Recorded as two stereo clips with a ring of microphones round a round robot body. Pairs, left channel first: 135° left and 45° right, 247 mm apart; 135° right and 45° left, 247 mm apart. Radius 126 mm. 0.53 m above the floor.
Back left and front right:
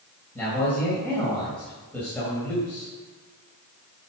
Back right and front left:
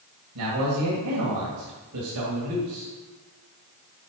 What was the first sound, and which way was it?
A man speaking, 50° left.